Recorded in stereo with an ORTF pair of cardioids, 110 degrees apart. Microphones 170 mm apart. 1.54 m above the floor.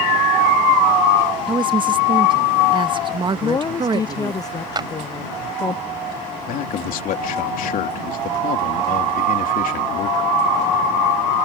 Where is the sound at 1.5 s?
30° right.